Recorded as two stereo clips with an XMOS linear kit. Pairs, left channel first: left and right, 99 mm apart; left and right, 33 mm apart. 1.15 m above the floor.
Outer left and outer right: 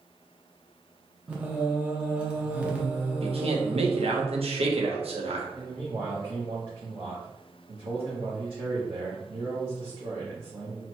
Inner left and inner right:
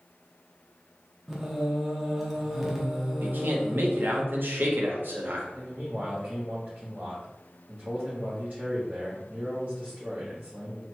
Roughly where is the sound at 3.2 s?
Right.